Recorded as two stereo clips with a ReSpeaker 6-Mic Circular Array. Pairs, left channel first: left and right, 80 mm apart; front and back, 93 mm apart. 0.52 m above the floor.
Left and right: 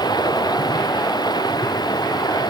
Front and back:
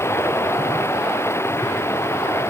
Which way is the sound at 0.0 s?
60° left.